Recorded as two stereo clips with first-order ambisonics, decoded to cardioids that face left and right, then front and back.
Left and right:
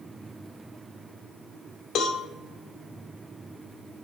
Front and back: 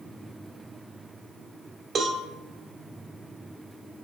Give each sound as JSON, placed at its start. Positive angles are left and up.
{"t": 1.9, "sound": "a cowbell", "azimuth_deg": 120, "distance_m": 0.9}